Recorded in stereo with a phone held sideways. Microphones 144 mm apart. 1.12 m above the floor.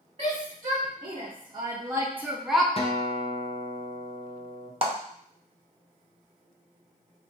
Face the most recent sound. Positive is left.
turn(degrees=-40)  # may be behind; listen again after turning